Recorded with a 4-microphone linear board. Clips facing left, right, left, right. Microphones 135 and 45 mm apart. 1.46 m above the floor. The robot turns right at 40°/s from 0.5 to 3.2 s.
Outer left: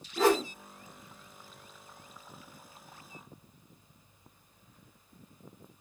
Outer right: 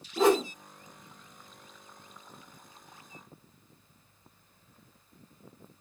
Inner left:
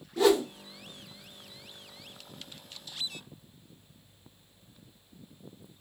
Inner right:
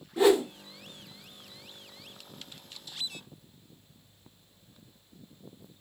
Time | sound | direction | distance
0.2 | a whoosh | 20° right (ahead or behind) | 1.3 m